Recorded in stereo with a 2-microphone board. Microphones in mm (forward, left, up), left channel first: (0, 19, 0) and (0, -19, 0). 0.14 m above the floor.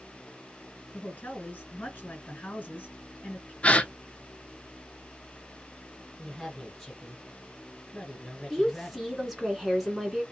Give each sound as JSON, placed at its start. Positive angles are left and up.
{"t": 0.9, "sound": "a woman speaking", "side_deg": 40, "distance_m": 2.0}
{"t": 3.6, "sound": "a gasp", "side_deg": 30, "distance_m": 0.6}
{"t": 6.2, "sound": "a woman speaking", "side_deg": 5, "distance_m": 2.0}
{"t": 8.5, "sound": "a woman speaking", "side_deg": 0, "distance_m": 1.4}